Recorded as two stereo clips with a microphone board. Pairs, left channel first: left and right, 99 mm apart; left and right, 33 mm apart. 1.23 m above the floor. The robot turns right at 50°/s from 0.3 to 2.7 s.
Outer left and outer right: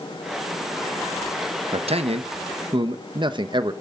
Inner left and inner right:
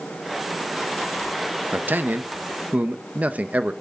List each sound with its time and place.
1.7 s a man speaking: 100° right, 1.2 m; by 3.7 s 55° right, 1.2 m